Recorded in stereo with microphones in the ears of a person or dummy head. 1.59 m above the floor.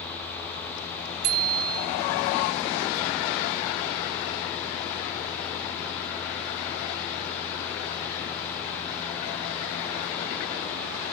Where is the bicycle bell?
50° right (ahead or behind), 2.5 m.